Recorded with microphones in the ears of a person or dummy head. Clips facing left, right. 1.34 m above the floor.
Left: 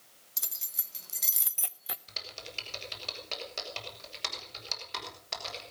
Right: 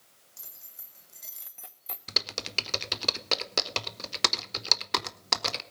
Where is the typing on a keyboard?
65° right (ahead or behind), 1.0 m.